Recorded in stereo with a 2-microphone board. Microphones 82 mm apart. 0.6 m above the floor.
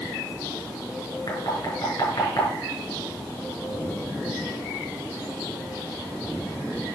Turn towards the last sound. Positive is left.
turn(degrees=55)  # may be behind; listen again after turning